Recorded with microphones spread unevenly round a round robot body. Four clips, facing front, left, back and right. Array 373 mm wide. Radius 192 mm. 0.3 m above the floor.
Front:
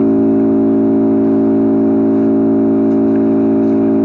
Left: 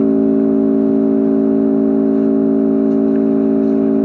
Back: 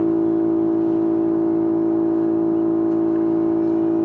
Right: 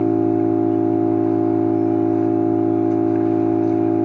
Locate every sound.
0.0 s an engine running: 30° left, 2.5 m